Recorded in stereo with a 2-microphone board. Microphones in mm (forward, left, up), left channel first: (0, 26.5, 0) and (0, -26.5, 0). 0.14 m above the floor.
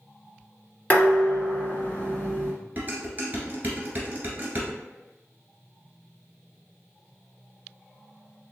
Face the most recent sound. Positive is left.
turn(degrees=-30)  # may be behind; listen again after turning